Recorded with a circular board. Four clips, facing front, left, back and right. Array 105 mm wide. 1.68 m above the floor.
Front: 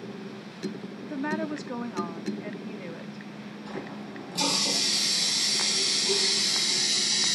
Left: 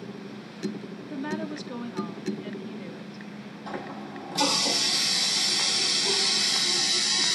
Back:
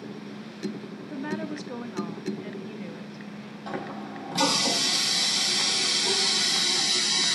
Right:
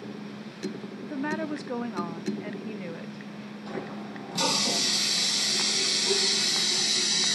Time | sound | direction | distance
1.0 | a woman speaking | 70° right | 0.7 m
3.7 | a running tap | 175° left | 6.5 m